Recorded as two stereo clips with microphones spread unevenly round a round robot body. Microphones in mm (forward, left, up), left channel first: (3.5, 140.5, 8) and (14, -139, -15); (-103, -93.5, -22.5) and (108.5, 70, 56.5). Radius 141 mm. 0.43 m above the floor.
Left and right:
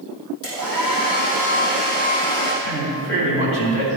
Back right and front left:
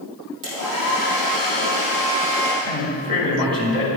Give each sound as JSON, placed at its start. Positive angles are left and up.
{"t": 0.4, "sound": "a hair dryer", "azimuth_deg": 55, "distance_m": 4.5}
{"t": 2.6, "sound": "a man speaking", "azimuth_deg": 115, "distance_m": 3.0}